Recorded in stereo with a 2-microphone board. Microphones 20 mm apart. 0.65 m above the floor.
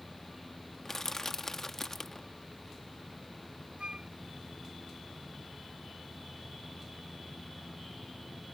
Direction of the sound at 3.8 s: 70° right (ahead or behind).